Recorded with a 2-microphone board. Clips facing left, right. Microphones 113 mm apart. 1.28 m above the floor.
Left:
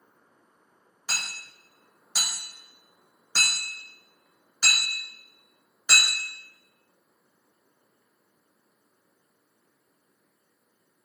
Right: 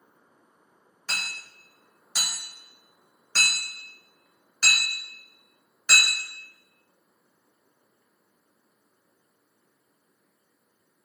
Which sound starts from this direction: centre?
Hammering, at 1.1 s.